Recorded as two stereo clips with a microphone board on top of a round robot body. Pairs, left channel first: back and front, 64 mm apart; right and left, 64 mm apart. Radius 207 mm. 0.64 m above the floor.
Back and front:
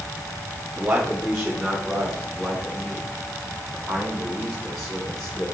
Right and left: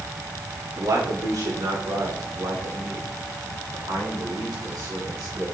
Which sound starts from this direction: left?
A man speaking, at 0.8 s.